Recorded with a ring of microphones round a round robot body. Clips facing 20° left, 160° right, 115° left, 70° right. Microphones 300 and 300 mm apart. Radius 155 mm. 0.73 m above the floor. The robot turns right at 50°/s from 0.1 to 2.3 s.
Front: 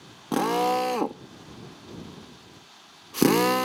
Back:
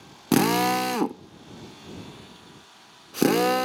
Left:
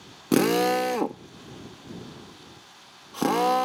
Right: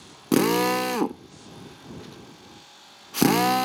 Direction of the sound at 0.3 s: 155° right.